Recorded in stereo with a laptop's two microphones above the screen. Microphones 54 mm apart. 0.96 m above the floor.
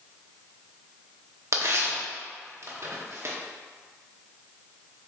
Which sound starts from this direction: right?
Tearing paper, at 1.5 s.